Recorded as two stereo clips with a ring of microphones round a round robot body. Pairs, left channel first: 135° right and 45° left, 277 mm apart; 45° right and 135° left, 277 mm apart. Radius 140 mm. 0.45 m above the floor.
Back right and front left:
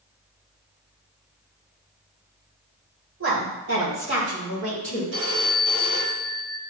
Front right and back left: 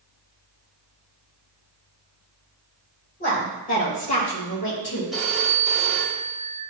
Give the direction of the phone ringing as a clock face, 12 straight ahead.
10 o'clock.